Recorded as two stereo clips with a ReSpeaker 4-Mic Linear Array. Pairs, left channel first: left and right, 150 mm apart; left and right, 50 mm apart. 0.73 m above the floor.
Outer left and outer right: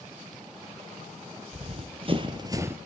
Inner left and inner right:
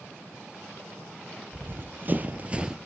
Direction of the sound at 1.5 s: 45° right (ahead or behind).